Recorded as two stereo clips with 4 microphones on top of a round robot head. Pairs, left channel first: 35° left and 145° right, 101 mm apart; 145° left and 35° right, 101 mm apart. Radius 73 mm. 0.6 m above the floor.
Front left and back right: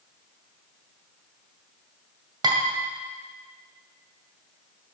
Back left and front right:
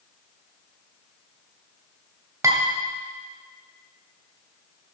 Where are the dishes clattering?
95° right, 2 m.